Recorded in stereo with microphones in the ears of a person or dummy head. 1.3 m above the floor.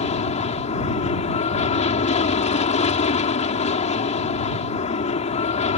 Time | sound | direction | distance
0.0 | an aircraft | 35° left (ahead or behind) | ?